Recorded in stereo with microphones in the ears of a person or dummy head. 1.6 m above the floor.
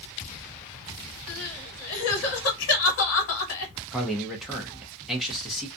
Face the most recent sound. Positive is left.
turn(degrees=0)  # may be behind; listen again after turning